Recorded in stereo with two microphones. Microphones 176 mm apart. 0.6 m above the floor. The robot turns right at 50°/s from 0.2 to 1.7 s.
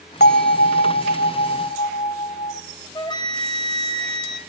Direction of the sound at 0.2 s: 65° left.